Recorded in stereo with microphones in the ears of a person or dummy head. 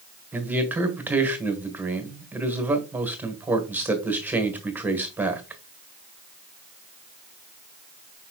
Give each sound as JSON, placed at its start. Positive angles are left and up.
{"t": 0.3, "sound": "a man speaking", "side_deg": -10, "distance_m": 1.5}